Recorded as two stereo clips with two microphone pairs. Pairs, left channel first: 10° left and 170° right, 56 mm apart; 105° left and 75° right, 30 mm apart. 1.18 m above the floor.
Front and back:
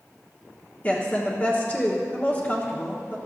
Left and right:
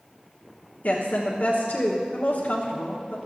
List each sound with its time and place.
0.8 s a woman speaking: 75° left, 1.1 m